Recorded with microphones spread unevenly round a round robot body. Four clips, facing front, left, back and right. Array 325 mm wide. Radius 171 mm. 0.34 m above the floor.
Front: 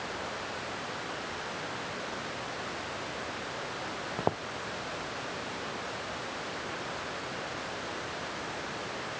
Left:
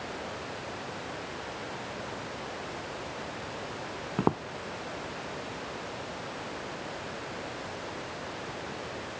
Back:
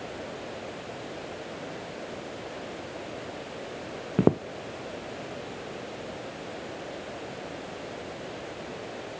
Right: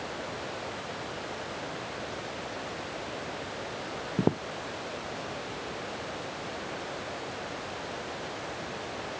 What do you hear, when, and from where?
4.2 s footsteps: straight behind